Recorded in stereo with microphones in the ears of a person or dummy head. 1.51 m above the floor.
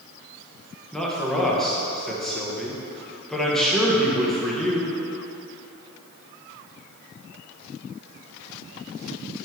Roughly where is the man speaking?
Centre.